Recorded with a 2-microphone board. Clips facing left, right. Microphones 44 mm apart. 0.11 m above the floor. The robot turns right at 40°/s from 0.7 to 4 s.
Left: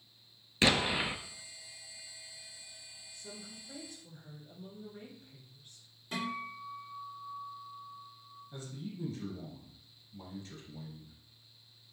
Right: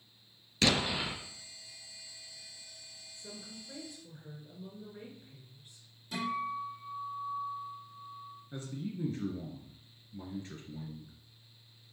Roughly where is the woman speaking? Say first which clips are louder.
Right 1 dB; ahead right.